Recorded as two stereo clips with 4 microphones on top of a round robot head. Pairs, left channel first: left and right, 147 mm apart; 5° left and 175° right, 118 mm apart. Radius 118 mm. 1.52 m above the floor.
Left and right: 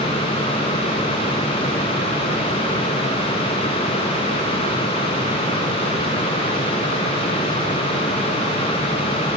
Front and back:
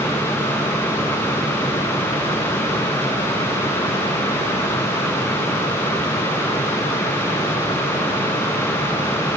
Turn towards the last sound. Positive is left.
No sound to turn to.